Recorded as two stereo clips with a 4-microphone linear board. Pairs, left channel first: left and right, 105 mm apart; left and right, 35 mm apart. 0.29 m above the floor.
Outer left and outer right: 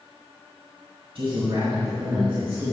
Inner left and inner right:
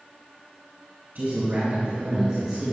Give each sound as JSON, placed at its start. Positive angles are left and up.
{"t": 1.1, "sound": "a man speaking", "side_deg": -55, "distance_m": 2.5}